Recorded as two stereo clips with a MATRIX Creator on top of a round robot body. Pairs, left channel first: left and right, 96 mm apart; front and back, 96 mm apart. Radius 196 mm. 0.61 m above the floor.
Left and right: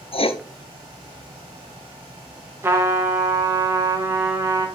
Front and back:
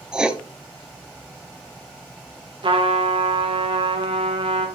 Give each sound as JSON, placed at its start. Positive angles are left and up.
{"t": 0.1, "sound": "writing", "azimuth_deg": 100, "distance_m": 0.9}
{"t": 2.6, "sound": "a trumpet", "azimuth_deg": -155, "distance_m": 1.8}